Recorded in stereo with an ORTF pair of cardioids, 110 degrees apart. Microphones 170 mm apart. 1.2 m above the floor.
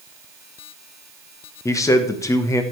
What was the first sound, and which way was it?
A man speaking, 20° left.